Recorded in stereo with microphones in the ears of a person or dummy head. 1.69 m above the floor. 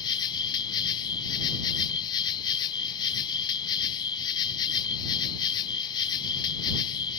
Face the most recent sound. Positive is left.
turn(degrees=20)  # may be behind; listen again after turning